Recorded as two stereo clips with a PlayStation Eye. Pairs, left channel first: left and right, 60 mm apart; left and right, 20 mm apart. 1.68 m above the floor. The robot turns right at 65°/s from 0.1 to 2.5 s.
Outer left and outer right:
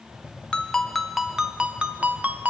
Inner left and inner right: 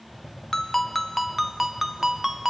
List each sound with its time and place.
0.5 s a ringtone: 15° left (ahead or behind), 0.6 m; by 2.5 s 25° right (ahead or behind), 0.6 m